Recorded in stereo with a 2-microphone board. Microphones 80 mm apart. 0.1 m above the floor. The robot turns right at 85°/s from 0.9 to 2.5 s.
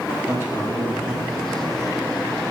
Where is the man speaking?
30° right, 4.5 m; by 1.3 s 5° left, 4.5 m.